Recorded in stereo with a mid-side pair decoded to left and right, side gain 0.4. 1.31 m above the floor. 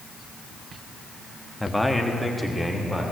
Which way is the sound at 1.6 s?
10° left.